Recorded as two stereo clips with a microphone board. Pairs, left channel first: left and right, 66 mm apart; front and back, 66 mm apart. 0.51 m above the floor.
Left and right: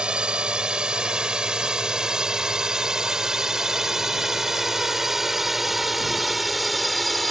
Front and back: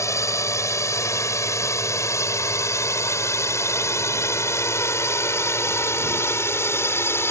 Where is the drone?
15° right; by 7.3 s straight ahead.